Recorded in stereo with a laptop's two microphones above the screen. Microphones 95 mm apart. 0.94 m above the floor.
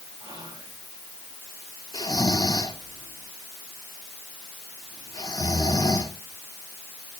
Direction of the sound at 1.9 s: 40° left (ahead or behind).